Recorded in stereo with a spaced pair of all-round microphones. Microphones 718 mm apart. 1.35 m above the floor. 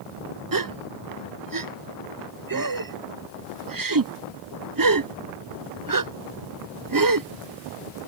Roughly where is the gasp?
Right.